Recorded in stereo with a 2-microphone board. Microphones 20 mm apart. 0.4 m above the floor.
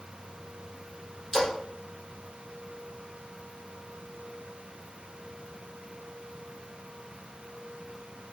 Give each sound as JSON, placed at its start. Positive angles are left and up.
{"t": 1.3, "sound": "a splash", "side_deg": -20, "distance_m": 1.2}